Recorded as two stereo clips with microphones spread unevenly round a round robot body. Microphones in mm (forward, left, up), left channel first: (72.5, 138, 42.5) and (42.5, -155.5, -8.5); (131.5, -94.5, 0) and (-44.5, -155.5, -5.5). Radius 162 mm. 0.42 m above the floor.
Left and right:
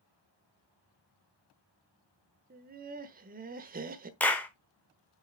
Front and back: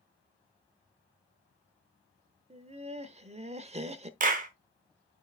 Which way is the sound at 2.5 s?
125° right.